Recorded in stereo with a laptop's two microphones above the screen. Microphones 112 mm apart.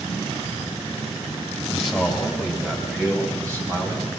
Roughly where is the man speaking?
Centre.